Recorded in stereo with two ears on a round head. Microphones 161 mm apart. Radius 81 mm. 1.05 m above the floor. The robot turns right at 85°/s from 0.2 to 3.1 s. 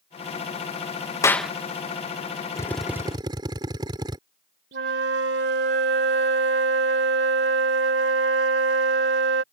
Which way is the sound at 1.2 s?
15° left (ahead or behind).